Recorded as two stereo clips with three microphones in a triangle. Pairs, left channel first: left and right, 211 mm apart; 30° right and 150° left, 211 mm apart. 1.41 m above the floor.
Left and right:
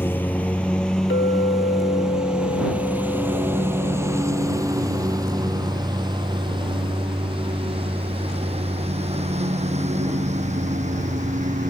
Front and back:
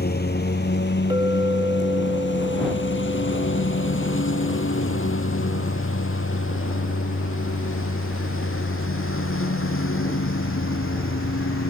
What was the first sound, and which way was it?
A lawn mower, 10° left.